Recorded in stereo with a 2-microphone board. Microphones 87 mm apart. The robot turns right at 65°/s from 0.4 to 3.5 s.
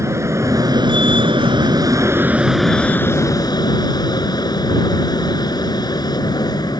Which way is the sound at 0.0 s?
145° right.